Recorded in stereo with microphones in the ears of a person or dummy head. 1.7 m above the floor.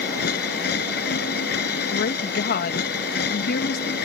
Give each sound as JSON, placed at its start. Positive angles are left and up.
{"t": 0.0, "sound": "a machine running", "side_deg": 60}
{"t": 1.9, "sound": "a woman speaking", "side_deg": 55}